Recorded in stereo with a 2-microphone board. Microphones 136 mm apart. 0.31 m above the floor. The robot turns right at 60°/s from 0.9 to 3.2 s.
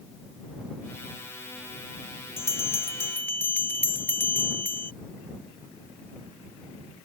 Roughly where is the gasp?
I don't hear a gasp.